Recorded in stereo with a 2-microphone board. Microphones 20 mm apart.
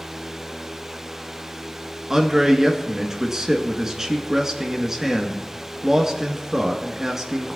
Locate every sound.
2.1 s a man speaking: 30° right (ahead or behind), 1.7 m